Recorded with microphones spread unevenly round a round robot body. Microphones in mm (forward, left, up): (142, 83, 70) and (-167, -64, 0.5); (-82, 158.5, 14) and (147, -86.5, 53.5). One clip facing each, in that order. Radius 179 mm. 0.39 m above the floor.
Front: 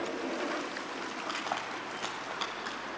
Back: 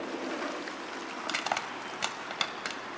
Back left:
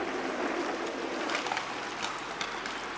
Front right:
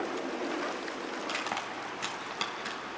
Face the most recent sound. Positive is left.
turn(degrees=-135)